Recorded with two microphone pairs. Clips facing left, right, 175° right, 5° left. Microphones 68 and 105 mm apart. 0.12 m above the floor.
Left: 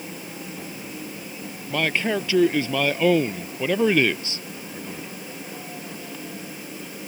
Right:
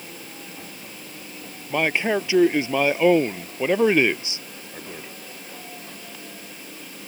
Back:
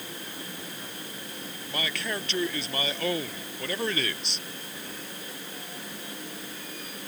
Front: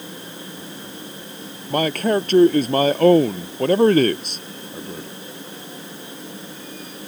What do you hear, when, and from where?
1.7 s a man speaking: 20° right